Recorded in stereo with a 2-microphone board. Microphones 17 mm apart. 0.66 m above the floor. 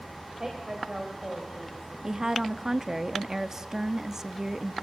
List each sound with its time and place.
0.4 s a woman speaking: 30° right (ahead or behind), 3.5 m; by 2.1 s 10° right (ahead or behind), 4 m
2.0 s a woman speaking: 30° right (ahead or behind), 0.8 m